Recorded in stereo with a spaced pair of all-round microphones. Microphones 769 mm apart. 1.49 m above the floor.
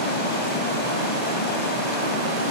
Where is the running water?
65° left (ahead or behind), 4.5 m.